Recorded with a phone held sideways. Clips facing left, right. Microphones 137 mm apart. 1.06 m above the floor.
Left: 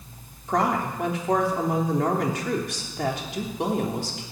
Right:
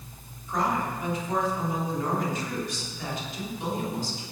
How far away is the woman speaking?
About 3 m.